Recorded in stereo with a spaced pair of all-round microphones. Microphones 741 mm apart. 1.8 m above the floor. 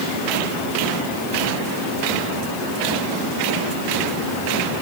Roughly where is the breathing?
I don't hear breathing.